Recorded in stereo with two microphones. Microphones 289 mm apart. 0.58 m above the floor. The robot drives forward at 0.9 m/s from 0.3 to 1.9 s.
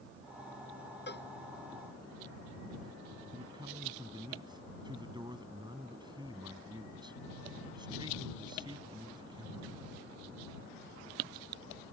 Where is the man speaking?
15° right (ahead or behind).